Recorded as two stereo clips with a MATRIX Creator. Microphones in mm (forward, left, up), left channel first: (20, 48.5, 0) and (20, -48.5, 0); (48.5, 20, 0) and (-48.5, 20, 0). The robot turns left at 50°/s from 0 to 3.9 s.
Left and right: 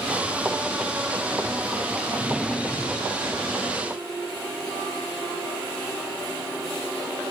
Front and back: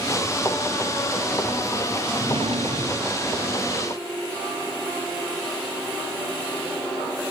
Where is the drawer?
165° right; by 3.3 s 135° left.